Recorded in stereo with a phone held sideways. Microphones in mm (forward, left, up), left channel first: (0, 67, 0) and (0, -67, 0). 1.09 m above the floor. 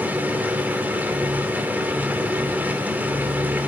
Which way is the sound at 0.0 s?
10° right (ahead or behind).